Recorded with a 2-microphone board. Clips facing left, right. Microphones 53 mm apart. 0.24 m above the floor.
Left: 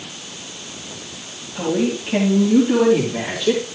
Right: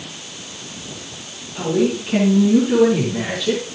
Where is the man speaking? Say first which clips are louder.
Right 2 dB; 5° left (ahead or behind), 5 m; by 3.6 s 20° left (ahead or behind), 6.5 m.